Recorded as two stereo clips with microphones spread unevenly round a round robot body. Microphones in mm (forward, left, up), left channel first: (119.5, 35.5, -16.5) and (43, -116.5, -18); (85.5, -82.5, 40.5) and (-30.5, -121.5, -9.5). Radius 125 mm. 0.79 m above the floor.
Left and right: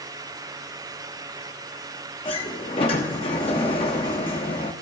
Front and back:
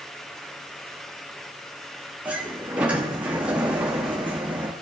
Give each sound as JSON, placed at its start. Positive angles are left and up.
{"t": 2.2, "sound": "a sliding door", "azimuth_deg": 130, "distance_m": 0.9}